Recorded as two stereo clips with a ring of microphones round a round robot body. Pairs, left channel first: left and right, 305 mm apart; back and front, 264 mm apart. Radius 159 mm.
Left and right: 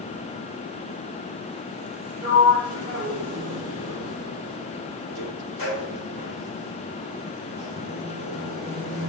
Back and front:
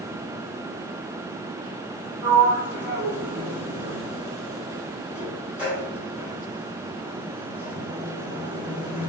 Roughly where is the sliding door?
Left.